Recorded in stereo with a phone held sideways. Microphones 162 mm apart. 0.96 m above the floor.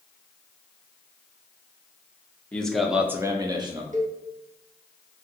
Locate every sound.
2.5 s a man speaking: 5° left (ahead or behind), 0.9 m; by 3.8 s 25° right (ahead or behind), 0.8 m
3.9 s a cowbell: 50° right (ahead or behind), 0.7 m